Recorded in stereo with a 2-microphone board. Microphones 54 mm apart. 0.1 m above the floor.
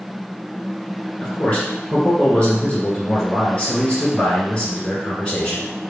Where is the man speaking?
25° left (ahead or behind), 1.6 m.